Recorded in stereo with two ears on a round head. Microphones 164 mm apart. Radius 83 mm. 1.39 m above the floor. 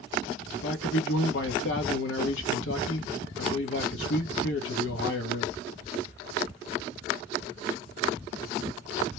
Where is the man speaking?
70° left (ahead or behind), 1.0 m.